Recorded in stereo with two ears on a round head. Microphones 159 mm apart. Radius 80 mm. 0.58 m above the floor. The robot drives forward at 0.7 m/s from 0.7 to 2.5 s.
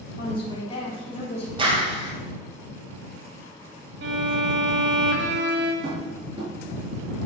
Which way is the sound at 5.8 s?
25° right (ahead or behind).